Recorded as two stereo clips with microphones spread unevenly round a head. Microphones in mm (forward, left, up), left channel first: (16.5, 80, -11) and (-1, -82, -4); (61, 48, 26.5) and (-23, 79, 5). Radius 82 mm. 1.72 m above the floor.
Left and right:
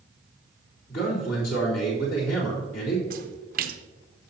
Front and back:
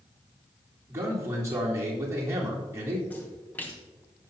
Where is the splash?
85° right, 0.7 m.